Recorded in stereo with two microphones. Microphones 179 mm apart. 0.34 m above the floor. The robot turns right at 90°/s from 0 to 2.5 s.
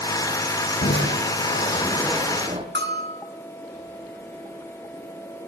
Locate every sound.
0.8 s crushing: 60° left, 4 m; by 2.6 s 145° right, 4 m
2.8 s a bell: 75° right (ahead or behind), 5 m